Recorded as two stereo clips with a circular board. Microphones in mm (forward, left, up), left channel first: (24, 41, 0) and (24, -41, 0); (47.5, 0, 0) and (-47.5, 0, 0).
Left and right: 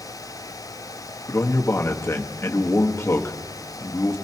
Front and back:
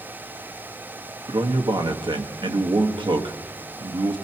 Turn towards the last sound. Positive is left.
turn(degrees=150)